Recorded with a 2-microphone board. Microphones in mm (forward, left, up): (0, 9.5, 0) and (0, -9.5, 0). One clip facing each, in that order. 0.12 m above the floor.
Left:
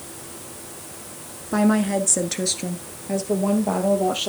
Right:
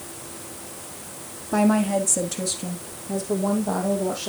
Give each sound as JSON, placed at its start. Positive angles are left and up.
{"t": 1.5, "sound": "a woman speaking", "side_deg": 10, "distance_m": 1.2}